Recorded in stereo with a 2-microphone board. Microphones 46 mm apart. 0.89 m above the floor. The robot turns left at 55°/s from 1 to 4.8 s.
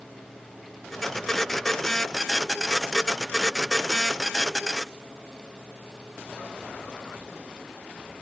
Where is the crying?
No crying in this recording.